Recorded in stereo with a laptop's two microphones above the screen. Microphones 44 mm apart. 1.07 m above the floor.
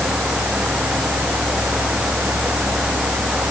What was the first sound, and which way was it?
A fan, 20° right (ahead or behind).